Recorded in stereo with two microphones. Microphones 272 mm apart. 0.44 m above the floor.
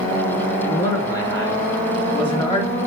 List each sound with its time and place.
0.6 s a man speaking: 10° left (ahead or behind), 5 m; by 2.8 s 25° left (ahead or behind), 1.9 m